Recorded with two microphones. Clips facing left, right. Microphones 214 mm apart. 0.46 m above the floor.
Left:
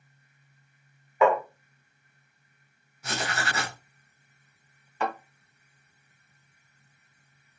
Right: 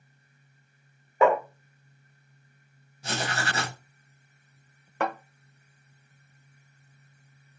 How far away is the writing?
About 0.9 m.